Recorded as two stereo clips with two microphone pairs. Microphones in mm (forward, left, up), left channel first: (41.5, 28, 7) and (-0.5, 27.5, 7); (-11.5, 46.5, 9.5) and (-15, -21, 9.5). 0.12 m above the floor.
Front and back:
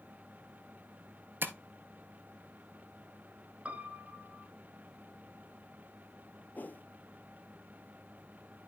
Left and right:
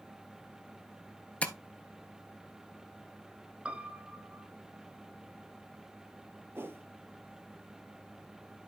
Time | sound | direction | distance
1.4 | tapping | 155° left | 0.9 m
3.6 | a piano | 155° right | 0.7 m
6.5 | a whoosh | 40° right | 0.8 m